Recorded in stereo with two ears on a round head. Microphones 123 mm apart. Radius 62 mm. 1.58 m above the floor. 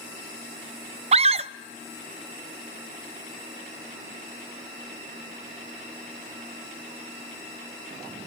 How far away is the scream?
About 0.6 m.